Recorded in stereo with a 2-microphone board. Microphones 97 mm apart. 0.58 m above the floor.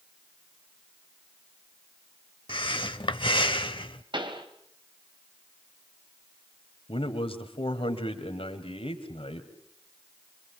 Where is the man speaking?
75° left (ahead or behind), 2.5 m.